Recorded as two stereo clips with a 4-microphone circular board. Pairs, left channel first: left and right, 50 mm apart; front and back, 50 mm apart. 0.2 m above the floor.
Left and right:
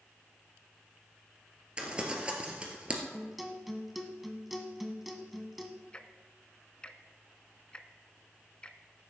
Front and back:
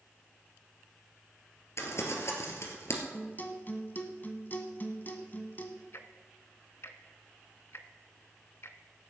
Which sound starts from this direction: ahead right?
Crumpling, at 1.8 s.